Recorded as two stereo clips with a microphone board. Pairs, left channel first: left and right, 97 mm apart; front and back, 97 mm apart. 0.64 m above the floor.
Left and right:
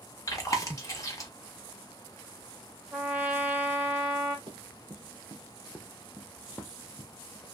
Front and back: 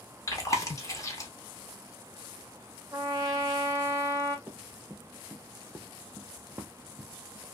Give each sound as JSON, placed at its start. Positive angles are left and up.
{"t": 0.3, "sound": "chewing", "azimuth_deg": 45, "distance_m": 0.8}
{"t": 2.9, "sound": "a trumpet", "azimuth_deg": -150, "distance_m": 0.9}
{"t": 4.5, "sound": "running footsteps", "azimuth_deg": -110, "distance_m": 1.1}